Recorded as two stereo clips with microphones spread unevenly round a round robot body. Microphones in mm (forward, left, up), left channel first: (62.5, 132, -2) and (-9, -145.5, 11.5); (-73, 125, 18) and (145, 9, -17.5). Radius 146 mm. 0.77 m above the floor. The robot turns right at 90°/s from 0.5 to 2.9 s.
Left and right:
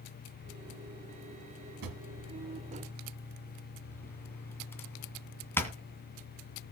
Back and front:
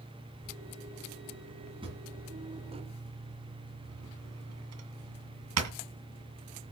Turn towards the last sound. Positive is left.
turn(degrees=-10)